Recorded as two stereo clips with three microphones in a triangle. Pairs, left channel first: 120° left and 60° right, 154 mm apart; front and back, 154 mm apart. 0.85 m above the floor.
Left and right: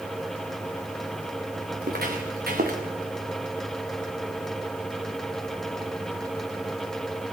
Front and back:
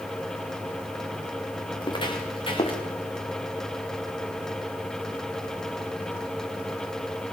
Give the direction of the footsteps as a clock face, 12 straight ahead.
2 o'clock.